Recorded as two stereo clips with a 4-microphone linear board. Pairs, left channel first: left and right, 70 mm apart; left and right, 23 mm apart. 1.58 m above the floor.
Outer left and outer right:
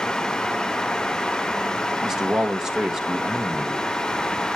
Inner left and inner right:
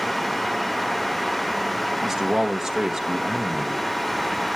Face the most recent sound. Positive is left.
turn(degrees=-10)  # may be behind; listen again after turning